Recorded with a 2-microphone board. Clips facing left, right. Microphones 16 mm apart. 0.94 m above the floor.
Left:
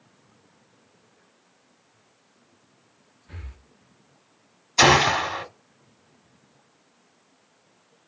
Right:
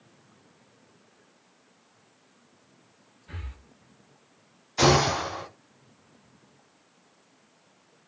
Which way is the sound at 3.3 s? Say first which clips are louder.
Right 2 dB; 65° right (ahead or behind).